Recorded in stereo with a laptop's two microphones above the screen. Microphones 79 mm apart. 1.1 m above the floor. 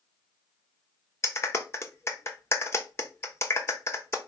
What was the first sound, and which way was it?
A clap, 35° left (ahead or behind).